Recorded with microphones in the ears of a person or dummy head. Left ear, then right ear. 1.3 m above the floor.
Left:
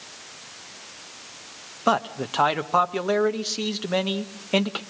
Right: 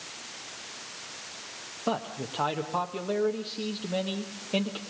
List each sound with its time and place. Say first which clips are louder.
1.9 s a man speaking: left 9 dB; 60° left (ahead or behind), 1.0 m